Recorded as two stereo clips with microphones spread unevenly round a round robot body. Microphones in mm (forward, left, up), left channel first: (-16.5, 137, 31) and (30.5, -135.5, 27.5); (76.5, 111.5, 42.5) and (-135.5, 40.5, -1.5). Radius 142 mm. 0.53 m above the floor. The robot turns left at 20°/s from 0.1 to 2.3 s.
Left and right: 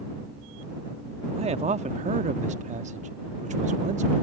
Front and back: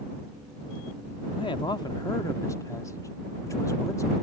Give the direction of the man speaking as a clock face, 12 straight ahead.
2 o'clock.